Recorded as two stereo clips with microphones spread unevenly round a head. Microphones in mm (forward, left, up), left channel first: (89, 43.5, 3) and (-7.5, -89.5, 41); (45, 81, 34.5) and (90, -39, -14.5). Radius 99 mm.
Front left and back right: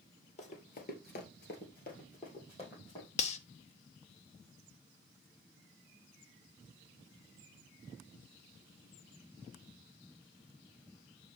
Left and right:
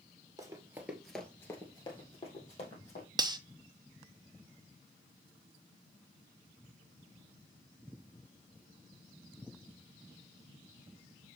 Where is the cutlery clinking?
Straight ahead, 0.5 m.